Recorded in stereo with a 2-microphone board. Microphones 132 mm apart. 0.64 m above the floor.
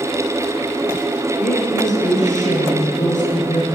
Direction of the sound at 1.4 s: 80° left.